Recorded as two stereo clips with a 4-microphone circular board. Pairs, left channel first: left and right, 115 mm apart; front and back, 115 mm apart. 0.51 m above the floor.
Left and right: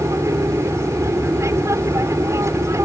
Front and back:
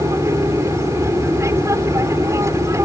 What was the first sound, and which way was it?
An aircraft, 135° right.